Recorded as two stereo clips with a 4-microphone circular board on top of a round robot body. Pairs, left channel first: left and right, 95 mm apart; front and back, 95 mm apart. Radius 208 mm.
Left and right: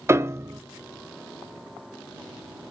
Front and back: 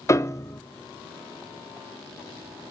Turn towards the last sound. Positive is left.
turn(degrees=-40)